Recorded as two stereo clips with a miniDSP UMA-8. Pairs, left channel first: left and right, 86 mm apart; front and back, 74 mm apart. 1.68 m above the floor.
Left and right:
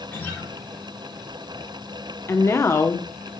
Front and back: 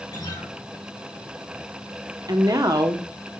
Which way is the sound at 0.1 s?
25° left.